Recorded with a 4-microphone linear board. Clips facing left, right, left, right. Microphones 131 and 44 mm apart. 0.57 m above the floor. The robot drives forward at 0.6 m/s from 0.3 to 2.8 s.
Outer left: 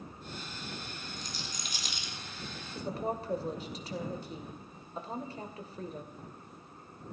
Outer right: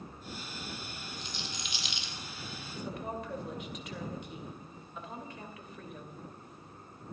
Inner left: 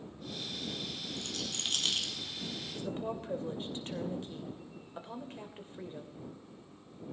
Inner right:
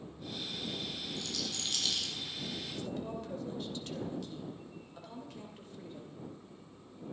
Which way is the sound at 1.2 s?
40° left (ahead or behind).